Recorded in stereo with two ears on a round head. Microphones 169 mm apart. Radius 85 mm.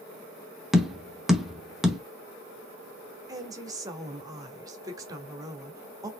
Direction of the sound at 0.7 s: Centre (ahead or behind).